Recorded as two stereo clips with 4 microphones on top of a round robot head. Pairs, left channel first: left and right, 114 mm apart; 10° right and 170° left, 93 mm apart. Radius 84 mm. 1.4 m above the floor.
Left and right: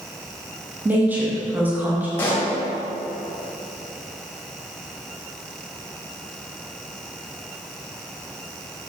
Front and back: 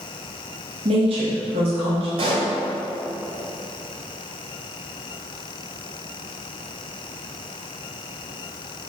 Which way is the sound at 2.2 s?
160° left.